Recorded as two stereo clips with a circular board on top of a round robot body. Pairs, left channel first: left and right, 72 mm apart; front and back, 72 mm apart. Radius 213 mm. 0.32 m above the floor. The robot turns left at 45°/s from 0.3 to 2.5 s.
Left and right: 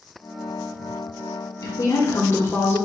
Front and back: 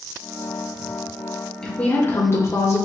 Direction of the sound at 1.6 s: 80° left.